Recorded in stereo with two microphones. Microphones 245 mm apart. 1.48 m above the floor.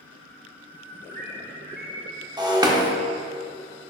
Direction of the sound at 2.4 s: 15° right (ahead or behind).